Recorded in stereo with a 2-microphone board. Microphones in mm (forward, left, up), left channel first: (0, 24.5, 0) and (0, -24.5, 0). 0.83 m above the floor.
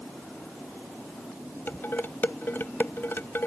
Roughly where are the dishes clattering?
Left.